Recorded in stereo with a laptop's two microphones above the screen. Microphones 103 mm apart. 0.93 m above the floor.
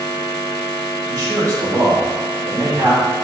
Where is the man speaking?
45° right (ahead or behind), 1.3 m.